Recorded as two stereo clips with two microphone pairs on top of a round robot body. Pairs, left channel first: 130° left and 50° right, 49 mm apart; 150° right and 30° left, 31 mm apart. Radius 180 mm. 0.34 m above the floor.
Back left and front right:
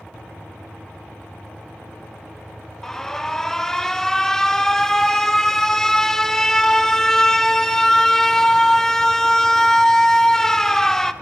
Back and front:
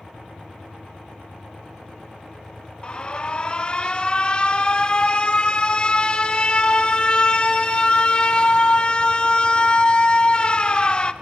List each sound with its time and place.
2.8 s an alarm: 160° right, 1.5 m